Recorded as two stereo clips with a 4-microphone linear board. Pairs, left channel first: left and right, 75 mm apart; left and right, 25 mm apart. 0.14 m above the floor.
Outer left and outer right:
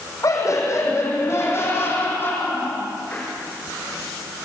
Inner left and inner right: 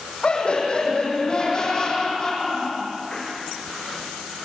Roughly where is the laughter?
Left.